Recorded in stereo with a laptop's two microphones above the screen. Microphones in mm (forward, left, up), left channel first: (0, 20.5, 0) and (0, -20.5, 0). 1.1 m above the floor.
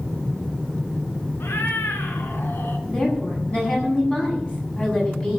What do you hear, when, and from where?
1.4 s a cat meowing: 75° left (ahead or behind), 3.5 m
2.9 s a woman speaking: 25° left (ahead or behind), 8.5 m